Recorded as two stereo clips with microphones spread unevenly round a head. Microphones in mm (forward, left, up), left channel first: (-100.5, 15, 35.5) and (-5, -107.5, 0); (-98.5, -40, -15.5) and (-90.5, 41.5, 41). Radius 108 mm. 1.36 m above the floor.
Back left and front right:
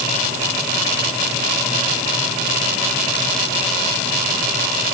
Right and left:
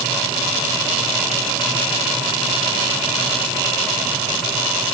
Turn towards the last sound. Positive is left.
No sound to turn to.